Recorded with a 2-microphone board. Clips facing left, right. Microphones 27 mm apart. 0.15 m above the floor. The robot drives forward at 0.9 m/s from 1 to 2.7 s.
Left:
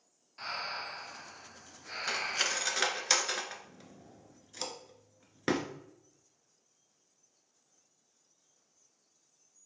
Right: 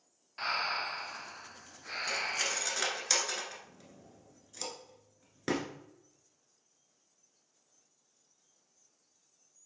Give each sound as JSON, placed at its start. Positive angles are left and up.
{"t": 0.4, "sound": "breathing", "side_deg": -30, "distance_m": 0.5}
{"t": 2.1, "sound": "cutlery clinking", "side_deg": 30, "distance_m": 0.8}